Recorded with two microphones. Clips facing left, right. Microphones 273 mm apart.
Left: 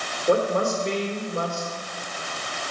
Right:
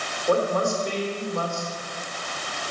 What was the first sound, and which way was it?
A woman speaking, 25° left (ahead or behind).